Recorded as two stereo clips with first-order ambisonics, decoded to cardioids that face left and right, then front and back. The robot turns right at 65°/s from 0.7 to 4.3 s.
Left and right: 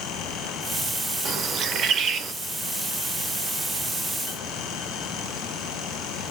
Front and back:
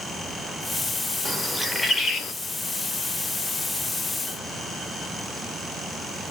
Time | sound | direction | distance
1.2 | a bird | 120° right | 0.6 m